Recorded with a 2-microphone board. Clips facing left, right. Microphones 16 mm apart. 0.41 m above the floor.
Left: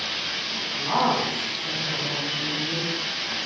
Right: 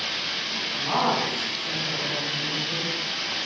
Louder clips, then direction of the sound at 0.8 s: Left 1 dB; 15° right (ahead or behind).